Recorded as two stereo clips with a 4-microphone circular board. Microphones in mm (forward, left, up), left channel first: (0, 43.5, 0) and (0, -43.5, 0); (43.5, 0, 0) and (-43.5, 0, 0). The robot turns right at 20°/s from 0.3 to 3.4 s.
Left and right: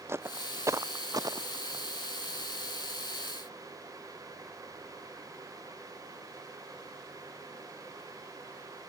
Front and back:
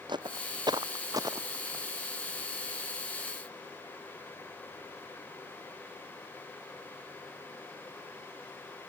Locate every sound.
0.1 s footsteps: 150° right; by 1.9 s 125° right